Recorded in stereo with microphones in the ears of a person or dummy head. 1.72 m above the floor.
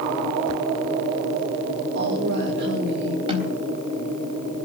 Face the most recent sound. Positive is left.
turn(degrees=-30)  # may be behind; listen again after turning